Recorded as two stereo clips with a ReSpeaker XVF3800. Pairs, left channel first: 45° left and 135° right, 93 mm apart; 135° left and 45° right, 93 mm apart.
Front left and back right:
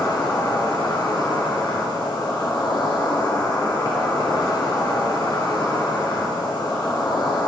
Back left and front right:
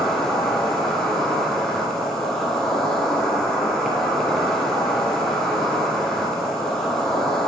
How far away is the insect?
About 3 m.